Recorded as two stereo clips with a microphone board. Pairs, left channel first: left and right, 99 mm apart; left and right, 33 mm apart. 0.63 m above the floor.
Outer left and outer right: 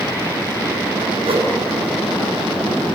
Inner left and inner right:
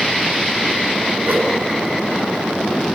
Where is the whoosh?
70° right (ahead or behind), 3 m.